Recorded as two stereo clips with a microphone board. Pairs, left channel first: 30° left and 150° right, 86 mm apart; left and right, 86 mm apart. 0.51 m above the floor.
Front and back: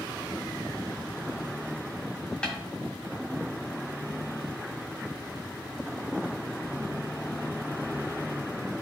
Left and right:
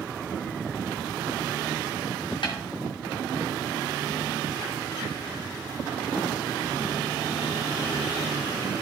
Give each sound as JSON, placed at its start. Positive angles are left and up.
{"t": 2.4, "sound": "a snare drum", "azimuth_deg": 110, "distance_m": 1.7}